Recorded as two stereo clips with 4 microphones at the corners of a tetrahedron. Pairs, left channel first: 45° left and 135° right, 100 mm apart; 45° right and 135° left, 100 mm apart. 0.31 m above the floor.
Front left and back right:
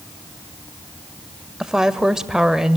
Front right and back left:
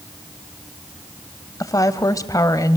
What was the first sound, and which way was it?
A woman speaking, 55° right.